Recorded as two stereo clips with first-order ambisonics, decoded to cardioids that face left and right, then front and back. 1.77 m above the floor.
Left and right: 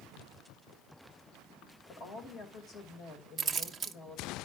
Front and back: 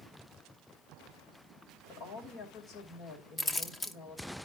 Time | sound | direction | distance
1.9 | a woman speaking | 45° left | 2.5 m
3.4 | keys jangling | 55° right | 0.6 m